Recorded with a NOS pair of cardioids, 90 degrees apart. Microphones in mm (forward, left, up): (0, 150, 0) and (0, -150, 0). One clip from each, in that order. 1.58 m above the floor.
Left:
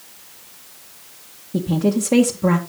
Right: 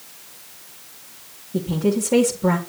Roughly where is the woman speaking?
Ahead left.